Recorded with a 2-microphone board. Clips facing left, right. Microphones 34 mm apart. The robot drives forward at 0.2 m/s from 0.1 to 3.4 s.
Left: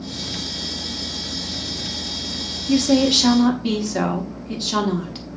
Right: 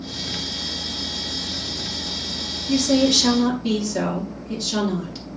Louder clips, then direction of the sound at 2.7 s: Left 1 dB; 35° left (ahead or behind).